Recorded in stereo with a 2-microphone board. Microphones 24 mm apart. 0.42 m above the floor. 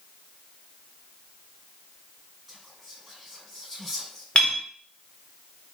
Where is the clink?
50° left (ahead or behind), 1.3 m.